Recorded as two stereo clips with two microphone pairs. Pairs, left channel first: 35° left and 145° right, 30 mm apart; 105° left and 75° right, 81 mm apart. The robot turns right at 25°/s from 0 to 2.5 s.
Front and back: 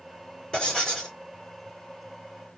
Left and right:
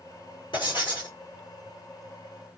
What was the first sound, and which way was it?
Writing, 95° left.